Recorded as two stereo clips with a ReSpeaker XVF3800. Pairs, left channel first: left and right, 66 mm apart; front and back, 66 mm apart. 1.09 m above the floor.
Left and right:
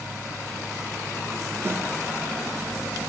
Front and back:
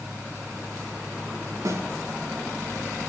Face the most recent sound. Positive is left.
turn(degrees=-140)